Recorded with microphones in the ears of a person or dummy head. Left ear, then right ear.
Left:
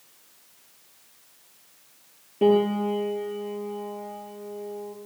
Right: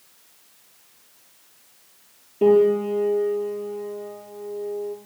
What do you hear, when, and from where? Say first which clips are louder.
2.4 s a piano: right 4 dB; 20° left (ahead or behind), 7 m